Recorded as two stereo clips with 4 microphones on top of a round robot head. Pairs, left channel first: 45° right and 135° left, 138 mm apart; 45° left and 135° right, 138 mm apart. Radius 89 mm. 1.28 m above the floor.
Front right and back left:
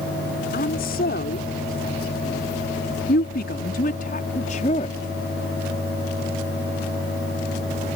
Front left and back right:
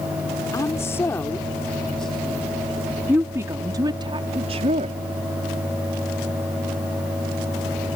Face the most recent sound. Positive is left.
turn(degrees=-95)